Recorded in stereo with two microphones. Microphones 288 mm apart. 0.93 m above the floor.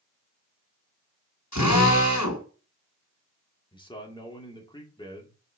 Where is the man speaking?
15° left (ahead or behind), 2 m.